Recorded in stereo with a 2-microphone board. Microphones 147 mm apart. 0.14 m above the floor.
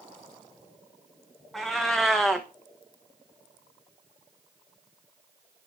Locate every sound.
1.5 s a cat meowing: centre (ahead or behind), 1.2 m